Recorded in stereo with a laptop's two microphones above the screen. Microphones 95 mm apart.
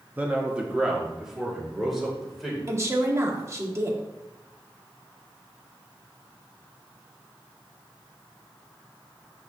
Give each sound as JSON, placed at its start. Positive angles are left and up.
{"t": 0.2, "sound": "a man speaking", "side_deg": -20, "distance_m": 1.4}
{"t": 2.7, "sound": "a woman speaking", "side_deg": -30, "distance_m": 1.8}